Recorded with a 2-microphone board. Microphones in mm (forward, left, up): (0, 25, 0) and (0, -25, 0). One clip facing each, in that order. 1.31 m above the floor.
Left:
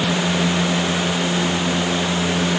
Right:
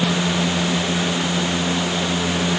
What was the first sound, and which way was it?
Only background noise.